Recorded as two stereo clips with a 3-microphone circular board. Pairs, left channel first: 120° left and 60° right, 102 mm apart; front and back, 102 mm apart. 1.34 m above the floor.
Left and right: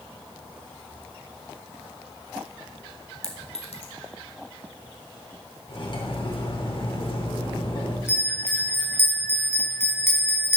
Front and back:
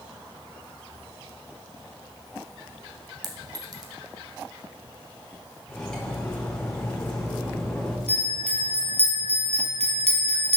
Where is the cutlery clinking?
80° left, 3 m.